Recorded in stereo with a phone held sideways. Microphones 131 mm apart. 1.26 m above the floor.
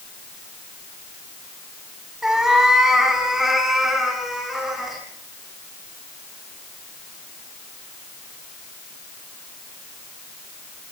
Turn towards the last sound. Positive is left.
turn(degrees=0)  # may be behind; listen again after turning